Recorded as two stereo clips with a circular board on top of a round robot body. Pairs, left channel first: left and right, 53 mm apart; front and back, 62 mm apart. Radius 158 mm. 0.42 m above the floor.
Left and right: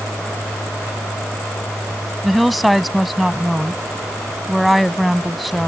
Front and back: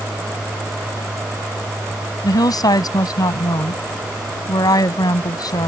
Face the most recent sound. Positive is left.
turn(degrees=0)